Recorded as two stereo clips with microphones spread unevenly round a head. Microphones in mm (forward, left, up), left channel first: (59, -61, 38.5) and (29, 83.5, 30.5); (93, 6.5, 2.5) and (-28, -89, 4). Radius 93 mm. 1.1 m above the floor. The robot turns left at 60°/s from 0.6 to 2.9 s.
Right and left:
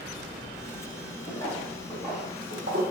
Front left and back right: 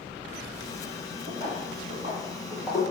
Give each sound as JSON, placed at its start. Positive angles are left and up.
{"t": 1.3, "sound": "footsteps", "azimuth_deg": -95, "distance_m": 1.4}